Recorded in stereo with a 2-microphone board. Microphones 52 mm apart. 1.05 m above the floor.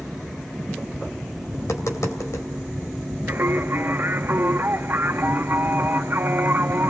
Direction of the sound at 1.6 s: 85° left.